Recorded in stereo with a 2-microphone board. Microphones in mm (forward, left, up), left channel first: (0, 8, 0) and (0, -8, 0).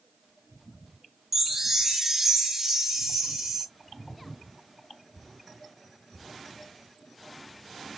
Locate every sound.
1.3 s a chime: 20° right (ahead or behind), 0.9 m